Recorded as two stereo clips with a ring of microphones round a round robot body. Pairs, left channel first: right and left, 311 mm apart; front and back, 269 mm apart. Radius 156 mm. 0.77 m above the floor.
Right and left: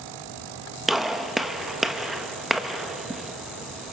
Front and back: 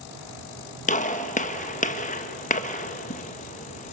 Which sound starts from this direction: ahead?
A gunshot, at 0.9 s.